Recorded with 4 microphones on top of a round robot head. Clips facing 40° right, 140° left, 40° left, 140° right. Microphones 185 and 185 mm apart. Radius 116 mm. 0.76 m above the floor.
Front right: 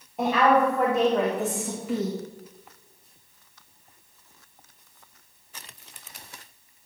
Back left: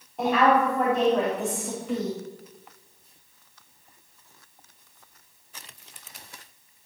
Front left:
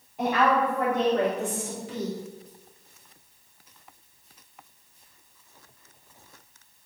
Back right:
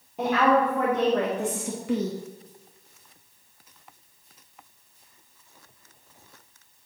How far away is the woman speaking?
About 2 m.